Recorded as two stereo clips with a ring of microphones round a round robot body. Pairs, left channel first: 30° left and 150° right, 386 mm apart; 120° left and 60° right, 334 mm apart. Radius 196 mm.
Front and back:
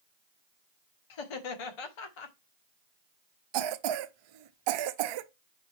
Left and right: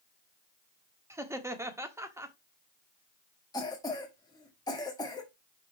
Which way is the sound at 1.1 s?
20° left.